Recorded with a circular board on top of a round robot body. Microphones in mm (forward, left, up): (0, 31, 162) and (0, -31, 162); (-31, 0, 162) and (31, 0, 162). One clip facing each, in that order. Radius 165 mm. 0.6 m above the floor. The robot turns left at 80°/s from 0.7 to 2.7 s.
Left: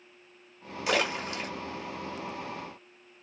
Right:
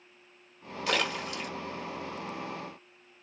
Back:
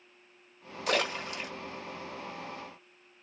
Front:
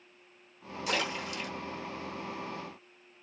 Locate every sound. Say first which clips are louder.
0.9 s a splash: left 2 dB, back 3 dB; 170° left, 1.9 m; by 1.5 s 115° left, 1.9 m